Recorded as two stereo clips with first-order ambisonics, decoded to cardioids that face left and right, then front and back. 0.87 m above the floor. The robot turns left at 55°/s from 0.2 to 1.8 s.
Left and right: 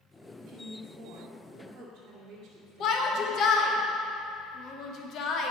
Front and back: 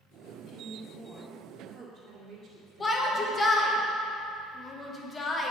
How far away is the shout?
About 1.0 m.